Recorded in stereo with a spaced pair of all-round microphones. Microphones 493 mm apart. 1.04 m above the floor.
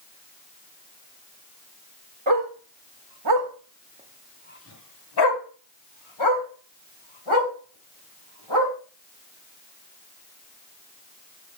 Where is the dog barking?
70° right (ahead or behind), 1.5 m; by 8.7 s 80° left, 3.5 m.